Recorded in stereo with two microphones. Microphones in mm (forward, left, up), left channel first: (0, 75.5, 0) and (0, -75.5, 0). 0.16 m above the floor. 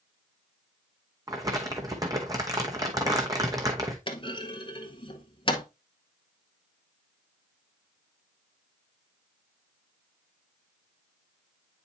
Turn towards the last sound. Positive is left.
turn(degrees=35)  # may be behind; listen again after turning